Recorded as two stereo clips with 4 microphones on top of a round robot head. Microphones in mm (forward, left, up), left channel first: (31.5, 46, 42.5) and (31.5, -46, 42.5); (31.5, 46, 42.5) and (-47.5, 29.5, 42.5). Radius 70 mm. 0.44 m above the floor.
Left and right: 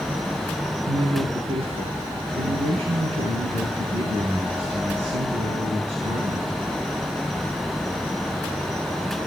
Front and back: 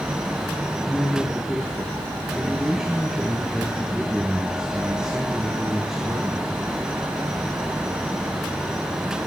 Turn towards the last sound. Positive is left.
turn(degrees=-85)